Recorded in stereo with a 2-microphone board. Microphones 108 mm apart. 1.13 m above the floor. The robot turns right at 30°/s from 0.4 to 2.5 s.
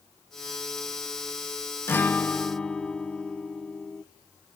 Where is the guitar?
20° left (ahead or behind), 0.6 m; by 4.0 s 5° left (ahead or behind), 0.6 m.